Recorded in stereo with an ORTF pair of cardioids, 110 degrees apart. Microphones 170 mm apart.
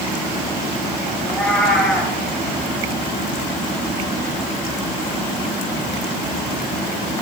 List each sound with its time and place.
1.2 s a cat meowing: 5° left, 6 m